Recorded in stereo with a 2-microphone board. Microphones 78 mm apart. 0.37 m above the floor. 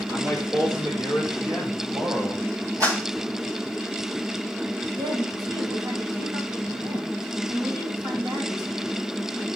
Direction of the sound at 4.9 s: 60° right (ahead or behind).